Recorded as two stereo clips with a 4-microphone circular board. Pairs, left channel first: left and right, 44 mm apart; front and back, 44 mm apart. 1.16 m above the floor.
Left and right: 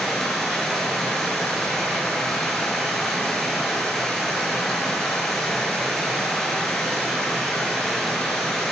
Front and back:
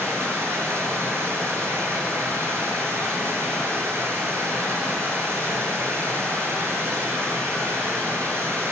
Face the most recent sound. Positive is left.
turn(degrees=175)